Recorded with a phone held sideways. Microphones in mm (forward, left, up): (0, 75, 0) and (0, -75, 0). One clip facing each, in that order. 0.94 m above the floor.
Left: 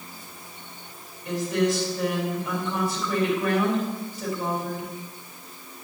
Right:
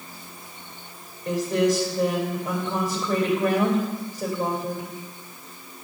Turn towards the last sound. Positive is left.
turn(degrees=-40)  # may be behind; listen again after turning